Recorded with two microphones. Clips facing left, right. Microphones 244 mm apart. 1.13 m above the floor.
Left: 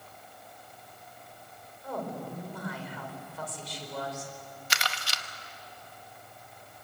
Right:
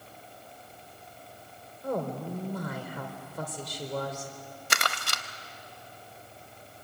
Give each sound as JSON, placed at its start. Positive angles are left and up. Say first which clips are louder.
{"t": 1.8, "sound": "a woman speaking", "louder": "right 5 dB", "side_deg": -45, "distance_m": 4.0}
{"t": 4.7, "sound": "crumpling", "louder": "right 4 dB", "side_deg": -55, "distance_m": 0.8}